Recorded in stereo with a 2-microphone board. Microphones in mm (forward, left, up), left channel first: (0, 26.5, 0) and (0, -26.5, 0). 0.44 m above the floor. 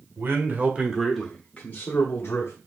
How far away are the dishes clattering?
I don't hear dishes clattering.